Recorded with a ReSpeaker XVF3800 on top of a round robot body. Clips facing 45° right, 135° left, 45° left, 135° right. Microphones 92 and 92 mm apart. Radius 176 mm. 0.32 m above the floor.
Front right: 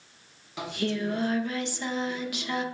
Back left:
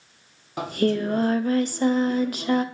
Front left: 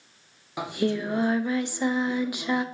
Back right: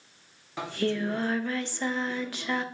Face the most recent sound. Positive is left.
turn(degrees=115)